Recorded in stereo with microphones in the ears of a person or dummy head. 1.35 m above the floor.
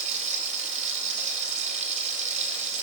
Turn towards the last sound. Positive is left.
turn(degrees=-45)  # may be behind; listen again after turning